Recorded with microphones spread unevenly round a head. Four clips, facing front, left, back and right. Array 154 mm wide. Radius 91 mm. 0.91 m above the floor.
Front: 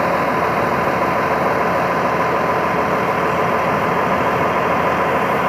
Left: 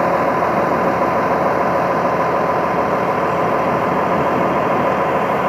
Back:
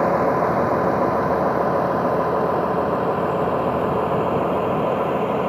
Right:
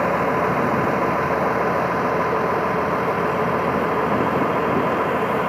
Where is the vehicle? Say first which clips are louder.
Left 4 dB, front 1 dB; 100° left; by 5.5 s 90° left.